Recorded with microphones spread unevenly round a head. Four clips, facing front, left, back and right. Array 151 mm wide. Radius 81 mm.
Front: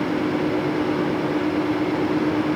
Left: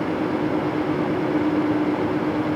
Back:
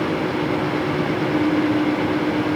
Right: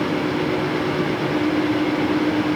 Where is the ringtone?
I don't hear a ringtone.